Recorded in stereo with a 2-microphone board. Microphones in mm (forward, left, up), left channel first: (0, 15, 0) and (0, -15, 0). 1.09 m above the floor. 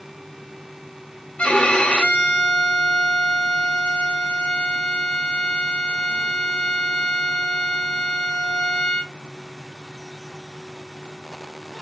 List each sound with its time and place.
1.4 s a violin: 40° left (ahead or behind), 0.9 m